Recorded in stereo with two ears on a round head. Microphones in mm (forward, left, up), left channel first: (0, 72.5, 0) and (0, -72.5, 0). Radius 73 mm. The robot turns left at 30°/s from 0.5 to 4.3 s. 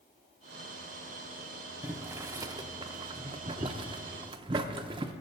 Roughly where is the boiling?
Centre.